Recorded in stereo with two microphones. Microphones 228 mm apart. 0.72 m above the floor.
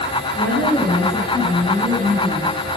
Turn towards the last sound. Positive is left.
turn(degrees=5)  # may be behind; listen again after turning